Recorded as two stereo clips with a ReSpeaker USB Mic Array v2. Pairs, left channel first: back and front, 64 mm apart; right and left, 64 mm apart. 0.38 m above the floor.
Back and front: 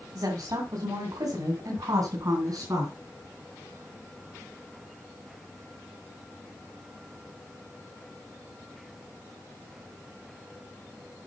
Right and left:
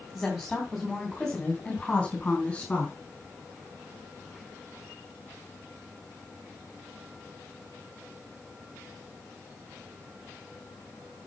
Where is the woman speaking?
Straight ahead, 3 m; by 3.0 s 20° right, 4.5 m.